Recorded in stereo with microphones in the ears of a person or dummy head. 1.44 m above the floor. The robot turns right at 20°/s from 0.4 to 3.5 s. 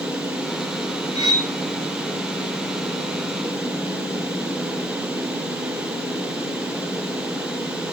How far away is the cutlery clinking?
About 1.2 m.